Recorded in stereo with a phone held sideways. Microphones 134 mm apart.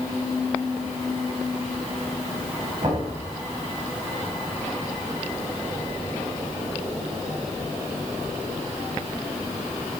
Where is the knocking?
30° right (ahead or behind), 6.5 m.